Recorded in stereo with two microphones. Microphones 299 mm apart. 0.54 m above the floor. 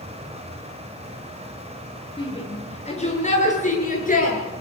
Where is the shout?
20° left (ahead or behind), 8 m; by 4.4 s 30° left (ahead or behind), 9 m.